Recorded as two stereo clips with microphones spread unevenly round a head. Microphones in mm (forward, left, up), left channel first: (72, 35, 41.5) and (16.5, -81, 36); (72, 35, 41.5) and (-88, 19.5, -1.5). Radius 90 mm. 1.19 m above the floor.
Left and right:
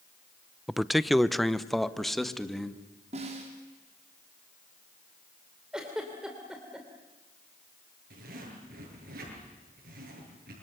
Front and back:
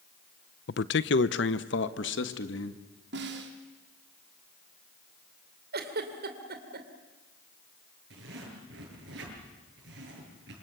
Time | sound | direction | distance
0.7 | a man speaking | 30° right | 0.6 m
3.1 | a snare drum | 165° right | 3 m
5.7 | a giggle | 160° left | 2.5 m
8.1 | a zipper | 140° right | 8 m